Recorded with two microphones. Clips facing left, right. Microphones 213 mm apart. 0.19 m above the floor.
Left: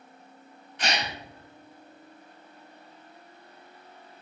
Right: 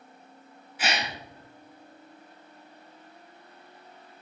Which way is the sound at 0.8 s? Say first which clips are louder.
Even; 5° right (ahead or behind).